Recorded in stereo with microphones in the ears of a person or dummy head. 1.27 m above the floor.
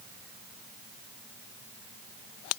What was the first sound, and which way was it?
Only background noise.